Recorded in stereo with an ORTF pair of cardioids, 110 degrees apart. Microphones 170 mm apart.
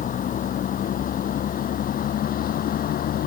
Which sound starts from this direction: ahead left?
A vehicle, at 0.0 s.